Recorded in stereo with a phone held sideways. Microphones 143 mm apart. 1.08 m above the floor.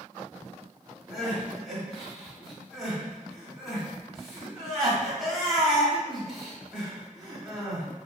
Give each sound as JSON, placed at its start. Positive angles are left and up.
{"t": 1.1, "sound": "crying", "side_deg": -5, "distance_m": 1.4}